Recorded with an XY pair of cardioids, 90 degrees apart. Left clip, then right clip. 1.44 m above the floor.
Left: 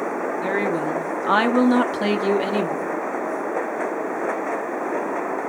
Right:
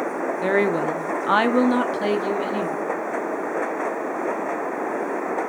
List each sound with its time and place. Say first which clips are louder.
0.4 s a woman speaking: right 4 dB; 40° right, 1.0 m; by 3.0 s 60° left, 1.2 m